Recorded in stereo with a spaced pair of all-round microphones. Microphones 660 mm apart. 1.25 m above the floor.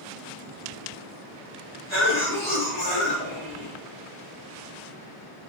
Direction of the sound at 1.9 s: 70° left (ahead or behind).